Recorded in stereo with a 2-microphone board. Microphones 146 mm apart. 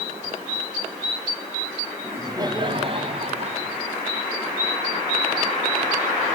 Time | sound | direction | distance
2.0 | laughter | 15° right (ahead or behind) | 1.4 m